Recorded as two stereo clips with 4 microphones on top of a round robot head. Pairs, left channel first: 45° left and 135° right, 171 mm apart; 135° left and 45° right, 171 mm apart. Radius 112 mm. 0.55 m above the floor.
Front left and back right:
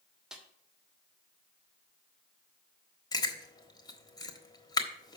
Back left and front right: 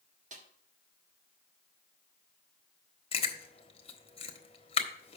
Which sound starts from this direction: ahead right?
A snare drum, at 0.3 s.